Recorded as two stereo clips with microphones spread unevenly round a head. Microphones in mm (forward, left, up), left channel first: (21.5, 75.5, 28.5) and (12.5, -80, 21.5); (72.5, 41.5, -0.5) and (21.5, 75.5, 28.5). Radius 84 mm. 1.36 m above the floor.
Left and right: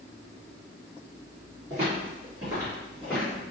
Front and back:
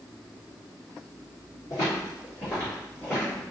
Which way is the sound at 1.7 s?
120° right.